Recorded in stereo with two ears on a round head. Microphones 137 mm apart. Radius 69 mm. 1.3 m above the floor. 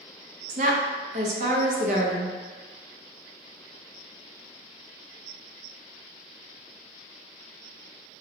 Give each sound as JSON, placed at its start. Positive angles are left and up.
{"t": 0.5, "sound": "a woman speaking", "side_deg": -50, "distance_m": 0.6}